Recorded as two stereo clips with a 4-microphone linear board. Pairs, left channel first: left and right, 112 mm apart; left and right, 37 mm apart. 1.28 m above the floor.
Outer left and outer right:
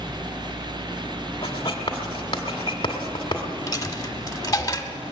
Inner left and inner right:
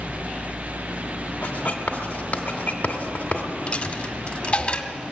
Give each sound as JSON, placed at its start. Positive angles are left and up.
{"t": 1.4, "sound": "writing", "side_deg": 45, "distance_m": 1.9}
{"t": 3.7, "sound": "a dropped coin", "side_deg": 30, "distance_m": 1.1}